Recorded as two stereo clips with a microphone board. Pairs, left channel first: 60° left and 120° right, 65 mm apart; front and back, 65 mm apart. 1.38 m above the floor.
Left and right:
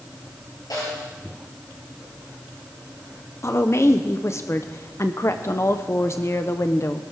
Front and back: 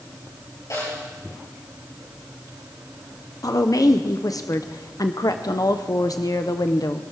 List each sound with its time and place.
0.7 s a snare drum: 35° left, 9.5 m
3.4 s a woman speaking: 15° left, 0.7 m